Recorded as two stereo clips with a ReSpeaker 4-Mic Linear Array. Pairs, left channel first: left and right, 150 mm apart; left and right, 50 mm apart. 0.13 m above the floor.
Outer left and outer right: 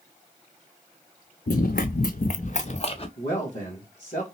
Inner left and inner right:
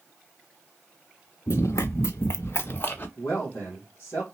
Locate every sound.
1.5 s running footsteps: 75° left (ahead or behind), 0.6 m; by 3.1 s 40° left (ahead or behind), 0.9 m
3.2 s a man speaking: 55° left (ahead or behind), 2.5 m